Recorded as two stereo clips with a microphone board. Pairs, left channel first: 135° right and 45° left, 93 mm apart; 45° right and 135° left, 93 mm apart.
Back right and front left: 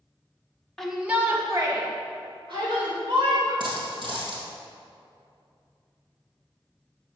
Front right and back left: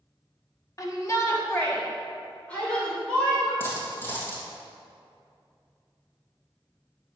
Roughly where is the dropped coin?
Ahead.